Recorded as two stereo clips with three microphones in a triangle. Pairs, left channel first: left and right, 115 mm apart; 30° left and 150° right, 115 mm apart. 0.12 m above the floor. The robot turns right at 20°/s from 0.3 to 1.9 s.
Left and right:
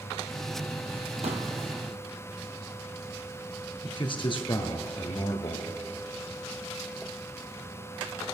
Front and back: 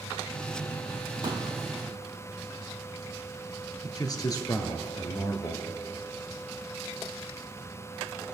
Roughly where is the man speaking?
Left.